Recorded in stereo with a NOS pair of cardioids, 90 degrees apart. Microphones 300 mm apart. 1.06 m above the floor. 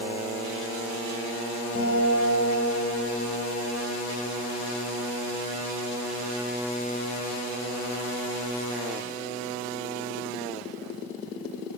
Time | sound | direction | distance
1.8 | a guitar | 45° left | 6 m